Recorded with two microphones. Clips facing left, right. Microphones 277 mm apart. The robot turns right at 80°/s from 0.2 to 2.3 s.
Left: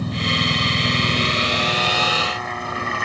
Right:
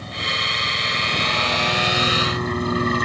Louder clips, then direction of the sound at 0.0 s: Left 9 dB; 60° left.